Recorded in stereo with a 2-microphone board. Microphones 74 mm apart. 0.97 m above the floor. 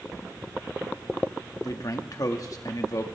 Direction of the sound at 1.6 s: 55° left (ahead or behind).